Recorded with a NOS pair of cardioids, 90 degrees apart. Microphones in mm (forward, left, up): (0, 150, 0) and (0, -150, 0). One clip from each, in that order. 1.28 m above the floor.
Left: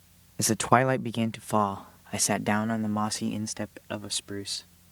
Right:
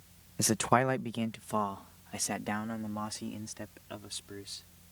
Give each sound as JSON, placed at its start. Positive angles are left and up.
{"t": 0.4, "sound": "a man speaking", "azimuth_deg": 10}